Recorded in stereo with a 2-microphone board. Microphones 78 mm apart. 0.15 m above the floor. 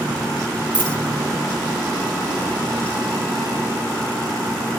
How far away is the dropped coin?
About 5.5 m.